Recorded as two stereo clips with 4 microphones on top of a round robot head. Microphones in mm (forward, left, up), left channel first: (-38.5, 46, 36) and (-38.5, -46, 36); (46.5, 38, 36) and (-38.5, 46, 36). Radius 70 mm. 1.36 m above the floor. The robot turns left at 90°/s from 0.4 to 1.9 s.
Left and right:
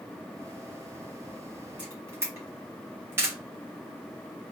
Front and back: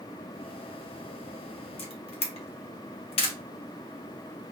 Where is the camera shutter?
10° right, 1.0 m; by 3.4 s 20° right, 1.0 m.